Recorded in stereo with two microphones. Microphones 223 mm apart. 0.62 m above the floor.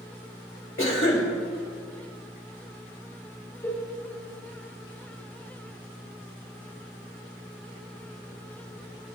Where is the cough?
60° left (ahead or behind), 3.5 m.